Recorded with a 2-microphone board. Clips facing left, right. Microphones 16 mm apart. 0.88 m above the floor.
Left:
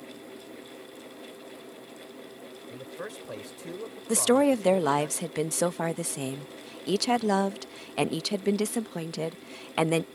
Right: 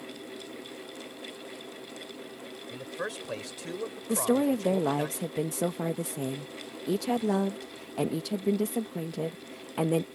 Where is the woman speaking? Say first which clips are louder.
Left 4 dB; 45° left (ahead or behind).